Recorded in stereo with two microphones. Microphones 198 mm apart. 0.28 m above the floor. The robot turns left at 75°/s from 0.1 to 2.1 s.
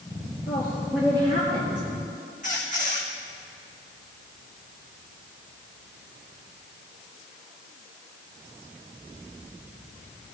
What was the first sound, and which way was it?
A woman speaking, 35° left.